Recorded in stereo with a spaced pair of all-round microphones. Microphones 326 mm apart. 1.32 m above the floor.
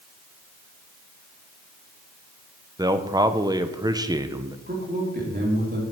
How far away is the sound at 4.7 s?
About 3 m.